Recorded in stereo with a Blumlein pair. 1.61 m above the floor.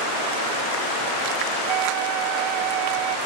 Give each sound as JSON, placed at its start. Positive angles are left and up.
{"t": 1.7, "sound": "a flute", "azimuth_deg": -40}